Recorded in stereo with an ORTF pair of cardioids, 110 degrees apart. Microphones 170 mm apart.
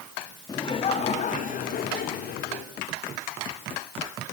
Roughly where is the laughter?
Ahead left.